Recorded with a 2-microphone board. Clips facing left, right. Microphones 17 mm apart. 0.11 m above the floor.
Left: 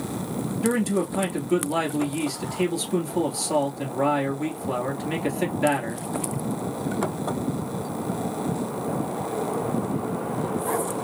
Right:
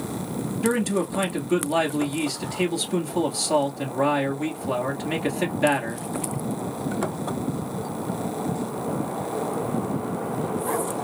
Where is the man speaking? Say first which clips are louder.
Even; 15° right (ahead or behind), 1.5 m.